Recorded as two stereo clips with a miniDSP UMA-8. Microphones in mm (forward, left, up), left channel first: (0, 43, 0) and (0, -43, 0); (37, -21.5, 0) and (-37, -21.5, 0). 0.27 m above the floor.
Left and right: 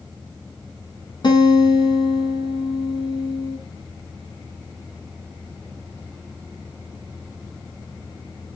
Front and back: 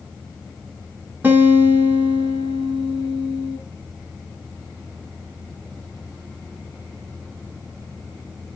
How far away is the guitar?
About 2.5 m.